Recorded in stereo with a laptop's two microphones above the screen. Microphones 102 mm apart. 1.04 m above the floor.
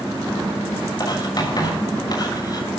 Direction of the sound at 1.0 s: 40° left (ahead or behind).